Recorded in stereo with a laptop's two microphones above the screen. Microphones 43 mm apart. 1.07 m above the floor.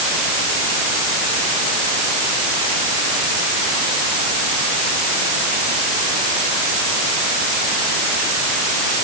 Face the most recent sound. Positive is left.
No sound to turn to.